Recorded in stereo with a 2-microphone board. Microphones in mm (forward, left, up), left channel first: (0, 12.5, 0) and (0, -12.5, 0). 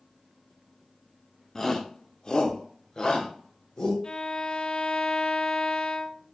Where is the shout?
20° left (ahead or behind), 0.8 m; by 3.9 s 30° left (ahead or behind), 2 m.